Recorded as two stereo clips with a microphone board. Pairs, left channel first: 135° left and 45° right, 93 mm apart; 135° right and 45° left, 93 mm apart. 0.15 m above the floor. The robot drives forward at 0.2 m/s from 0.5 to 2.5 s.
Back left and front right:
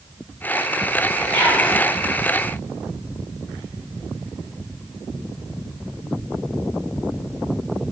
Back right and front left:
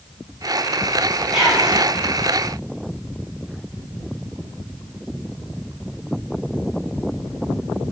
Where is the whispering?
100° left, 1.3 m; by 1.8 s 110° left, 1.3 m.